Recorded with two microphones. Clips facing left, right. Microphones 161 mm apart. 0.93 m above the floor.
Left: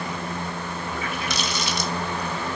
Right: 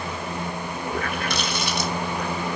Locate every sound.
0.9 s a running tap: 55° right (ahead or behind), 1.7 m